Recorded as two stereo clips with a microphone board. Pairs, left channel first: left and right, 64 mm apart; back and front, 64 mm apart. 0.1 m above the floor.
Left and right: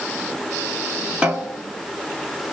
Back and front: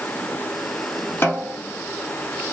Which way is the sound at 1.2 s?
150° right.